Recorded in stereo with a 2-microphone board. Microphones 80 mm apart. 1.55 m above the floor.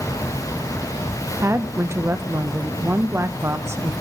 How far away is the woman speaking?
About 0.5 m.